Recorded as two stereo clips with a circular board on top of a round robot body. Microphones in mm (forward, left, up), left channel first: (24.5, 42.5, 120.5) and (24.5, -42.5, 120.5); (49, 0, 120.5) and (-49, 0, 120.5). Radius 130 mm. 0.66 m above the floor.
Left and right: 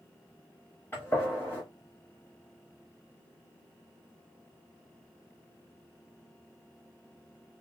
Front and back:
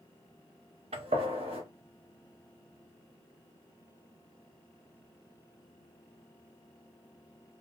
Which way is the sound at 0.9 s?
160° left.